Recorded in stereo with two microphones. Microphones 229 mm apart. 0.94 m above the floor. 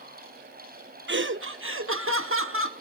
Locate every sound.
1.1 s laughter: 55° right (ahead or behind), 0.7 m; by 2.7 s 65° right (ahead or behind), 1.9 m